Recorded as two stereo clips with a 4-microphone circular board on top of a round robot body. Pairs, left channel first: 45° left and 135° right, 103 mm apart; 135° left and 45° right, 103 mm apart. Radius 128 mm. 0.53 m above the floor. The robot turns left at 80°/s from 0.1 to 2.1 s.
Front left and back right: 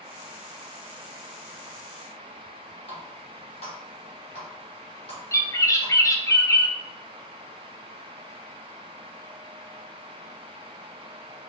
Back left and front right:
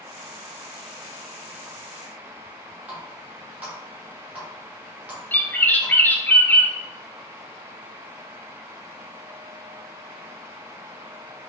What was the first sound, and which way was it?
A running tap, 30° left.